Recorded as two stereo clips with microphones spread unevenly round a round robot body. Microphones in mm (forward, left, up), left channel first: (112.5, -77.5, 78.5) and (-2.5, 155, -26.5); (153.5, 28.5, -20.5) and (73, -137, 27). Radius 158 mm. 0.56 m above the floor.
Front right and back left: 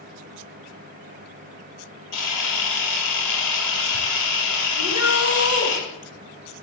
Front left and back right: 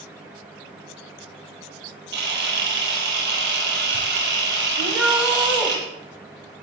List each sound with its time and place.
2.1 s a camera shutter: 95° right, 7.5 m
4.8 s a shout: 25° right, 3.5 m